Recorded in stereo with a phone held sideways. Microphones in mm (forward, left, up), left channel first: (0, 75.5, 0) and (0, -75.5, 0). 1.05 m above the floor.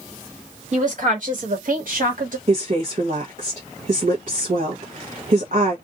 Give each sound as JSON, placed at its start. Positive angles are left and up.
{"t": 0.7, "sound": "a woman speaking", "side_deg": -55, "distance_m": 1.9}
{"t": 2.5, "sound": "a woman speaking", "side_deg": -60, "distance_m": 1.0}